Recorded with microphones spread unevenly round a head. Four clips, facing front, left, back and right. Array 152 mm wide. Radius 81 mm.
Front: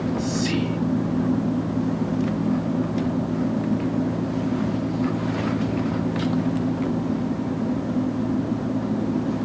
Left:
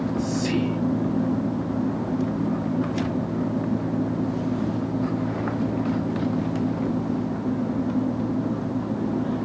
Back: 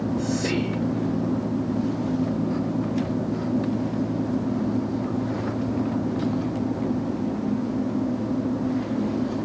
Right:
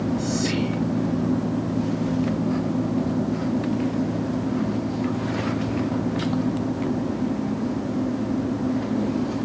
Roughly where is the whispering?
Behind.